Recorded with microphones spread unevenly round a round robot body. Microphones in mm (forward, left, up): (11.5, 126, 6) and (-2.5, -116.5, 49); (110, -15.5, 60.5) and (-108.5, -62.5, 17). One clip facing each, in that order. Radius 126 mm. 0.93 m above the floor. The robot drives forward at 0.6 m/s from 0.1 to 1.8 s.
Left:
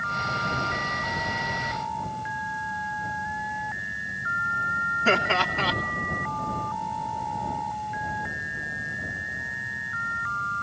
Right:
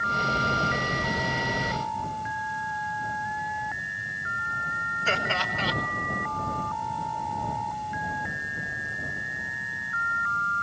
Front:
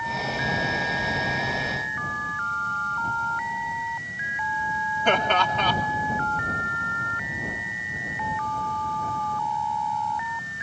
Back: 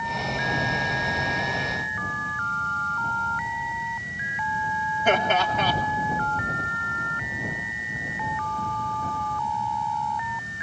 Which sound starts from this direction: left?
Laughter, at 5.0 s.